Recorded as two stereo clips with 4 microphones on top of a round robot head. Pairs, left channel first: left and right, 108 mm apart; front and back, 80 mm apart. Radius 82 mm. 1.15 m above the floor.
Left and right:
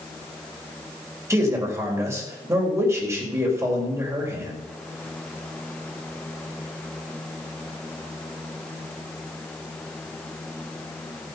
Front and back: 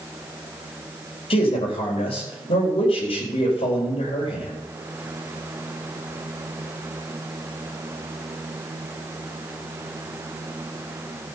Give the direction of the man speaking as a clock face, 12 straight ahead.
1 o'clock.